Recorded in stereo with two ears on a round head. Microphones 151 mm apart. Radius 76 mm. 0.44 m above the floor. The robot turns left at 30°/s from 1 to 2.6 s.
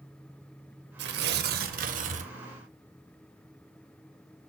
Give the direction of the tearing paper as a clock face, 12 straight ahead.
3 o'clock.